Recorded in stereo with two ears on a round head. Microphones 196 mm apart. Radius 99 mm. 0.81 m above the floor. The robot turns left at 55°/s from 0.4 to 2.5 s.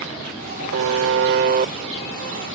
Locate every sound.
0.7 s a buzzer: 90° right; by 1.7 s 145° right